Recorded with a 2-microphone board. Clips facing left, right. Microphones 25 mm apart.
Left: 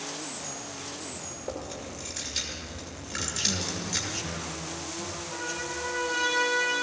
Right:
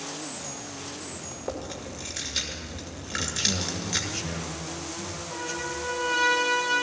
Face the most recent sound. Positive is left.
turn(degrees=-30)  # may be behind; listen again after turning